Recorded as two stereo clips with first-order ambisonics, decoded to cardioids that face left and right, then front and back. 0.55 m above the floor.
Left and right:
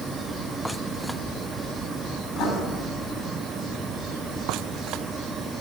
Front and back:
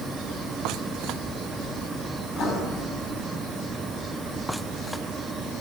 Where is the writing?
40° left, 4.5 m.